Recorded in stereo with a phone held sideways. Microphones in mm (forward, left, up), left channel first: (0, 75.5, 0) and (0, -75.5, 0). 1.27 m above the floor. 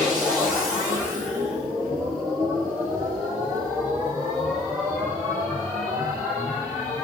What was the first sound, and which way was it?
A machine running, 25° right (ahead or behind).